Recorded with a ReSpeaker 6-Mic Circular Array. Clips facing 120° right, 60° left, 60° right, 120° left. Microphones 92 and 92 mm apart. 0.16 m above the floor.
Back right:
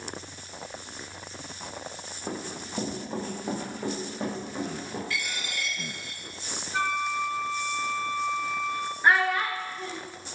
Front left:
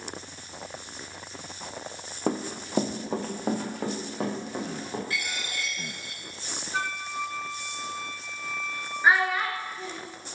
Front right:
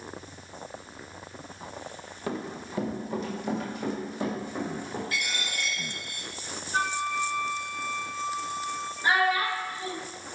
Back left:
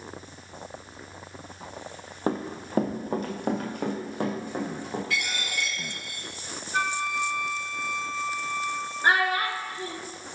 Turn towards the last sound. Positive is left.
turn(degrees=145)